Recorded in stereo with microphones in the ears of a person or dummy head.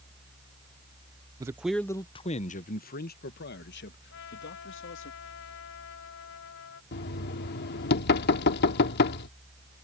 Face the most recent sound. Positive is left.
turn(degrees=55)  # may be behind; listen again after turning